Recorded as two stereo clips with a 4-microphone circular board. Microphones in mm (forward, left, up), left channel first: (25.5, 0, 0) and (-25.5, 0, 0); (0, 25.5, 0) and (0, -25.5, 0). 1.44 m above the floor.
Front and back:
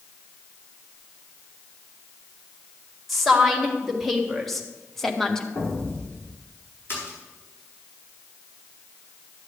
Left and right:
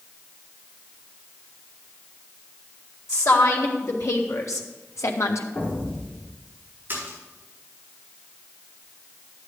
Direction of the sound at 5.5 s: 35° left.